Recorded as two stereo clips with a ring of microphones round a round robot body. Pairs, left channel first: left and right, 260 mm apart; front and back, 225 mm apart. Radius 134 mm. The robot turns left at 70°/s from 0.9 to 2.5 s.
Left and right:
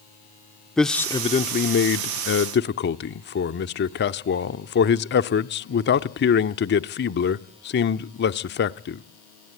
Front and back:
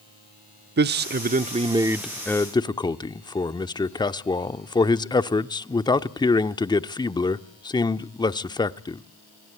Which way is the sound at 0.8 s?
175° left.